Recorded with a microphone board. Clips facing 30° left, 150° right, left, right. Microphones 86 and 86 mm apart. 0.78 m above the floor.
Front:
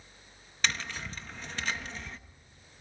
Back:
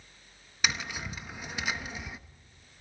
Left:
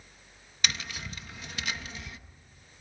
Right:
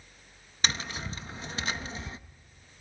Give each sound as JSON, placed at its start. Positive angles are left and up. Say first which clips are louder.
{"t": 0.6, "sound": "tapping", "louder": "back 1 dB, right 2 dB", "azimuth_deg": -80, "distance_m": 0.8}